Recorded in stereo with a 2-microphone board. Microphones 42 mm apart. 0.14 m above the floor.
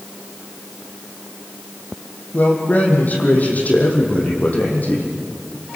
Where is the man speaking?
40° left (ahead or behind), 4.5 m.